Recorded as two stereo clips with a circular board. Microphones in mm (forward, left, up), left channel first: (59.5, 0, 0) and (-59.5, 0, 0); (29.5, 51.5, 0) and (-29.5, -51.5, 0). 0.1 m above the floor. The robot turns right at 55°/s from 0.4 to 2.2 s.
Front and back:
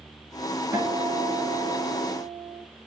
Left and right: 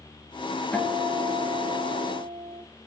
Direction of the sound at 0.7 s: 130° left.